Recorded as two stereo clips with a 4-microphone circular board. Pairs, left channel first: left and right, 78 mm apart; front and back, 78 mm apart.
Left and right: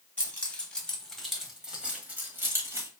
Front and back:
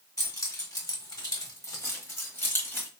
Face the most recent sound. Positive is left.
turn(degrees=-60)